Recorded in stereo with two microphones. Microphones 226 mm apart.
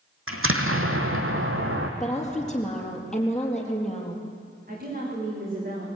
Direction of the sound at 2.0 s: Centre (ahead or behind).